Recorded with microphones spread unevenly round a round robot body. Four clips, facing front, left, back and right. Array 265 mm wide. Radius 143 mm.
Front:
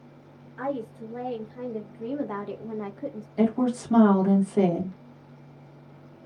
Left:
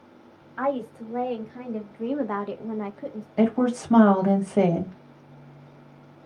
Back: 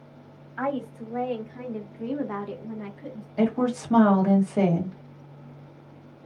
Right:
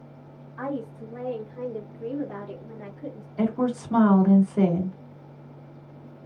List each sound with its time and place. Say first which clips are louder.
0.6 s a woman speaking: left 5 dB, back 2 dB; 120° left, 1.6 m; by 3.3 s 40° left, 0.7 m
3.4 s a woman speaking: left 3 dB, even; 100° left, 1.3 m